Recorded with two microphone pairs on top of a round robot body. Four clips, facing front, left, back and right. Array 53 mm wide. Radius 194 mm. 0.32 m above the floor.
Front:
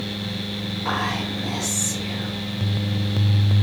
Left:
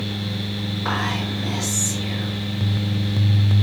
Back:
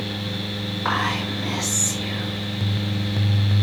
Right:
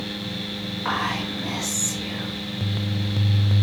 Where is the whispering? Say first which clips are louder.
Even, back 2 dB; 175° right, 4.5 m.